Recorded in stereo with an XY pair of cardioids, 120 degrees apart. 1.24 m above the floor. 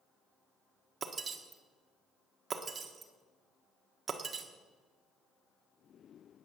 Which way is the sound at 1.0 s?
35° right.